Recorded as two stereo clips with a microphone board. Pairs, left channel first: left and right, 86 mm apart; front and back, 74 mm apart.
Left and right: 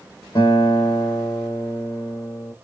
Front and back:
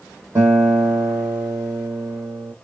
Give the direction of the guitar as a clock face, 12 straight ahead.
8 o'clock.